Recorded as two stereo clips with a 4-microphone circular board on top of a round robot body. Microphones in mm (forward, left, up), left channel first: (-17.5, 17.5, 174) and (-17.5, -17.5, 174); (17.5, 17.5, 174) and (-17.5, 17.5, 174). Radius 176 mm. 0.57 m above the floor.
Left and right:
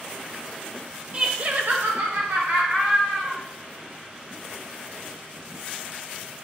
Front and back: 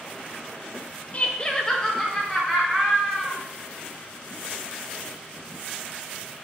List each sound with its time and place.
1.1 s laughter: 40° right, 1.1 m; by 3.4 s 100° right, 3 m